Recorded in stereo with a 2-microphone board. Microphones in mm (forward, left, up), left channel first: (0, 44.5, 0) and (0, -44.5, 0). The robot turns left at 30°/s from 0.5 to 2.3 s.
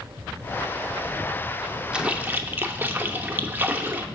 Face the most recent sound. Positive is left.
turn(degrees=-20)  # may be behind; listen again after turning